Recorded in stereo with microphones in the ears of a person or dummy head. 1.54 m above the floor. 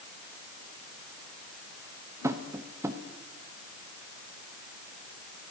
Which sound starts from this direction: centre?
Tapping, at 2.2 s.